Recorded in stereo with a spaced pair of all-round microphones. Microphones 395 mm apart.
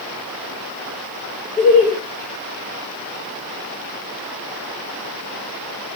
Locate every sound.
1.6 s laughter: 60° right (ahead or behind), 1.9 m